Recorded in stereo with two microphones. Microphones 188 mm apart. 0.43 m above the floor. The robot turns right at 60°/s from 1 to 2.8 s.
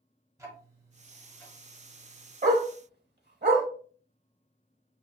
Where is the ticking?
15° right (ahead or behind), 1.0 m; by 2.3 s 55° left (ahead or behind), 1.0 m.